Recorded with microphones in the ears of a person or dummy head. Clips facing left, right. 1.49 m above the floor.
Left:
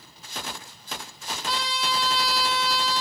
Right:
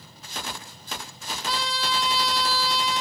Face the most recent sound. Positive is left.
turn(degrees=5)  # may be behind; listen again after turning